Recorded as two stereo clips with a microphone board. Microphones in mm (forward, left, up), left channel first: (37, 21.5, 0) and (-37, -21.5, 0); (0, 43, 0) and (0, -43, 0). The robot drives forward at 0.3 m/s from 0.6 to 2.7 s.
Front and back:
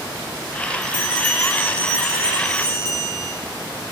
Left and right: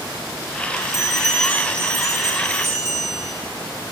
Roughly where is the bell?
Ahead right.